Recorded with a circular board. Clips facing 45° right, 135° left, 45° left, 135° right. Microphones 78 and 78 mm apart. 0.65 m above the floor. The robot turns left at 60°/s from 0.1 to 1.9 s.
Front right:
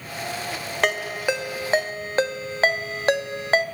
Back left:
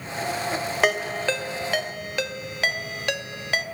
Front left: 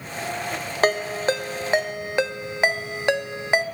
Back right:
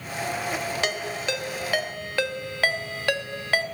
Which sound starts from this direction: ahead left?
A ringtone, at 0.8 s.